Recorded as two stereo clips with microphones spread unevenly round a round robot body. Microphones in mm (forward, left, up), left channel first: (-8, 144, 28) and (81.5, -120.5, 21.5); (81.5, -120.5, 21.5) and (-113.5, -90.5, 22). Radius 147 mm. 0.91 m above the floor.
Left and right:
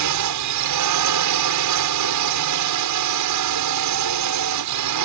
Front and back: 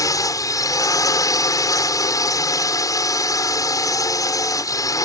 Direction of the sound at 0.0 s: 80° right.